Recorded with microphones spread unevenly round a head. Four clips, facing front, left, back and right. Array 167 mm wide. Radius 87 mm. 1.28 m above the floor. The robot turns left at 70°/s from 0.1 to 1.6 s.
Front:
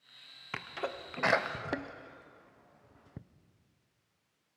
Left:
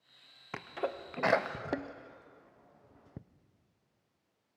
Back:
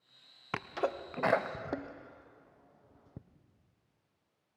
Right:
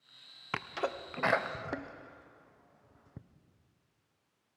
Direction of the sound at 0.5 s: Straight behind.